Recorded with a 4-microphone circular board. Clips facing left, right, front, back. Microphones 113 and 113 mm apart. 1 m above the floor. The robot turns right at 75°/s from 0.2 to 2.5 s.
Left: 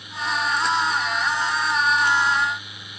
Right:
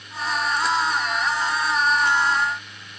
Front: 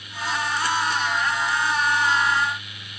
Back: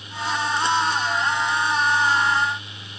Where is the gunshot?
No gunshot in this recording.